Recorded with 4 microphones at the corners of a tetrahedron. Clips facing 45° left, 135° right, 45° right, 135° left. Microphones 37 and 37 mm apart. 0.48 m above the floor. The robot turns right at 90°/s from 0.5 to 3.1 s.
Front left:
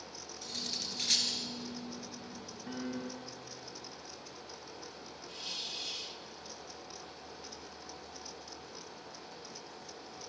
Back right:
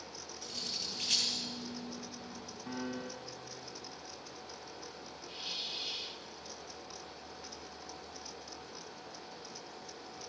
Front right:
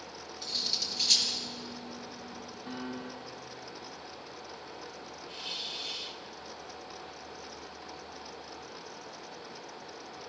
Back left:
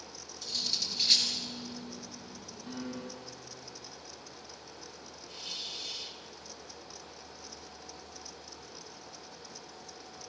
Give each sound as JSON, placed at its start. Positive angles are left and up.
{"t": 0.4, "sound": "cutlery clinking", "azimuth_deg": 20, "distance_m": 4.0}
{"t": 2.7, "sound": "a piano", "azimuth_deg": -115, "distance_m": 4.0}
{"t": 5.3, "sound": "a hiss", "azimuth_deg": -75, "distance_m": 1.4}